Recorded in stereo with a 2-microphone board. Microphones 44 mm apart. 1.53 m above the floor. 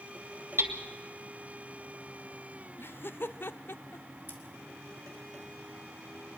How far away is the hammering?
About 1.9 m.